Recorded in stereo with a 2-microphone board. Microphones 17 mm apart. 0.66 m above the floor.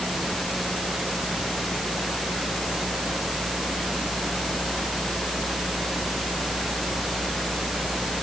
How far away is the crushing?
I don't hear crushing.